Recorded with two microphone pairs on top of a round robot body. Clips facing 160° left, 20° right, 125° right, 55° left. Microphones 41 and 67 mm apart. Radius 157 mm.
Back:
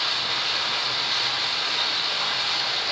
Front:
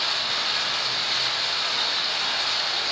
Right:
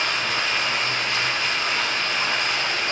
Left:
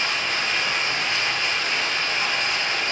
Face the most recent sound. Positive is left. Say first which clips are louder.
# even, right 1 dB
turn(degrees=-125)